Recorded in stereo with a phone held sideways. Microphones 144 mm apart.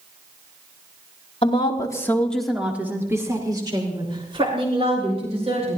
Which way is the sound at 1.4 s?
40° left (ahead or behind).